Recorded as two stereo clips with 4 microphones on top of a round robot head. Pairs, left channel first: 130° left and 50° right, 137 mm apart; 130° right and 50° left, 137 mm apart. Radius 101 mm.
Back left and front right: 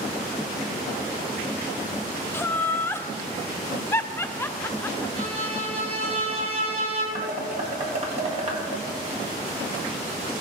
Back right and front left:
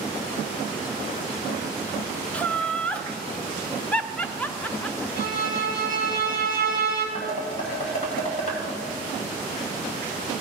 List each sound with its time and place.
2.3 s laughter: 170° left, 0.6 m
5.2 s a violin: 100° right, 2 m
7.2 s dishes clattering: 85° right, 2 m